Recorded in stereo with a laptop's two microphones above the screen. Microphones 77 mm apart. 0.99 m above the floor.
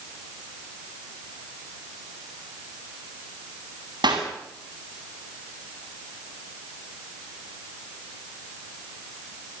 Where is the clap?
70° right (ahead or behind), 8.5 m.